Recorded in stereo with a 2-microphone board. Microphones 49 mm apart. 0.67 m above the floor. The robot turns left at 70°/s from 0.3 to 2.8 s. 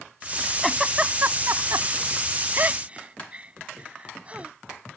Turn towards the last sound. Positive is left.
turn(degrees=-25)  # may be behind; listen again after turning